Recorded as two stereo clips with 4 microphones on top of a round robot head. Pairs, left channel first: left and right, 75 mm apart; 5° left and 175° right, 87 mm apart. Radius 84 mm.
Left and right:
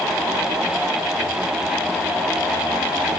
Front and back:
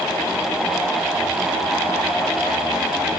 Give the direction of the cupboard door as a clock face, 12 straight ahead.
No cupboard door in this recording.